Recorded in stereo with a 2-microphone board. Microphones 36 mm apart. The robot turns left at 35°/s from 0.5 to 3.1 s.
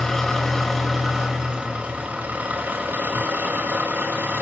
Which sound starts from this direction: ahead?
An engine running, at 0.0 s.